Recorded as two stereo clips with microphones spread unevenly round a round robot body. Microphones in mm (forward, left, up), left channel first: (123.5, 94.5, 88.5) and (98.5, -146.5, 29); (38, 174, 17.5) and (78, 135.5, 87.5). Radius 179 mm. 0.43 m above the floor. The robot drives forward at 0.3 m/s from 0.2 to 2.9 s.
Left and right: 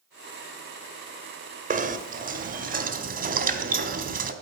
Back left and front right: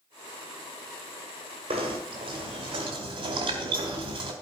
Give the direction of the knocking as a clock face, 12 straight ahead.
3 o'clock.